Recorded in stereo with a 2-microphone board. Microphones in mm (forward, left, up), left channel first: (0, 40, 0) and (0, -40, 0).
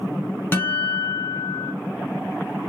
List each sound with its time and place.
0.5 s a guitar: 25° left (ahead or behind), 1.3 m